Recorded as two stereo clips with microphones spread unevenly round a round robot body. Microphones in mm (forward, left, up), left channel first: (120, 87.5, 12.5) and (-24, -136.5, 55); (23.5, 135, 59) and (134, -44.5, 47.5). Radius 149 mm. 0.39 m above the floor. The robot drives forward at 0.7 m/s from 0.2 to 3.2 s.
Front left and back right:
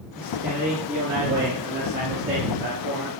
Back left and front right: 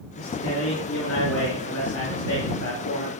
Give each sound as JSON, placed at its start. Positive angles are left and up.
{"t": 0.2, "sound": "a man speaking", "azimuth_deg": 150, "distance_m": 5.0}